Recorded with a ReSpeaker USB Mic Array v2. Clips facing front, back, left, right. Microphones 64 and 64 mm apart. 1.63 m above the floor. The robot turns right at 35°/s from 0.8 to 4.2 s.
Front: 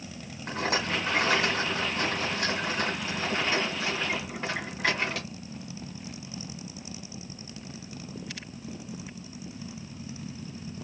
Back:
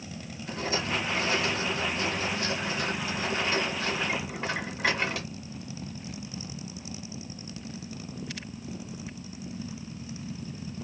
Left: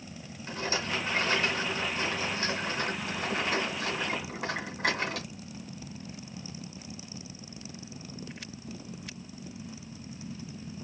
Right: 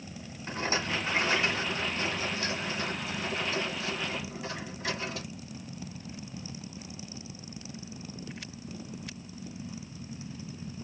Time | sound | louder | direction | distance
0.5 | a rattle | front 2 dB, right 1 dB | 25° right | 2 m